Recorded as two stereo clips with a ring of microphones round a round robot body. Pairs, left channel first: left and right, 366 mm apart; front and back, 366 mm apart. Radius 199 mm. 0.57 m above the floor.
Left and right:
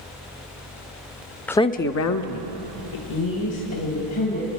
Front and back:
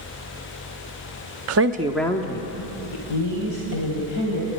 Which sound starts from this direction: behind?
A woman speaking, at 1.5 s.